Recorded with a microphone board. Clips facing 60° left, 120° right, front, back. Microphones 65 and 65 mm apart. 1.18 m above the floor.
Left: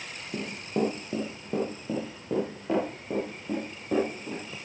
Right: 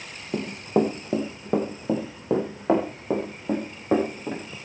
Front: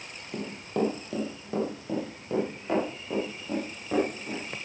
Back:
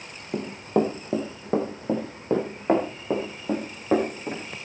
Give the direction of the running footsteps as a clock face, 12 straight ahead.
4 o'clock.